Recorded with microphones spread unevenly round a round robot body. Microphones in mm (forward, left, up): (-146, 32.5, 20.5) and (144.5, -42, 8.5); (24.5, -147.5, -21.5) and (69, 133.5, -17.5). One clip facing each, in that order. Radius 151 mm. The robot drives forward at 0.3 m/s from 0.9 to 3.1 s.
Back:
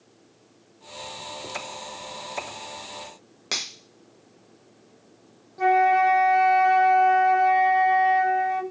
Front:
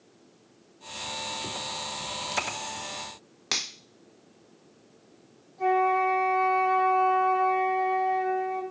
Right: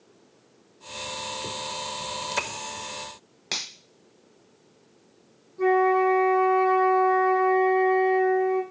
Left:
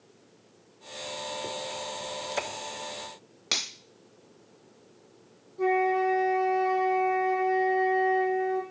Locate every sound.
3.5 s a finger snap: 45° left, 0.9 m
5.6 s a flute: 175° left, 0.6 m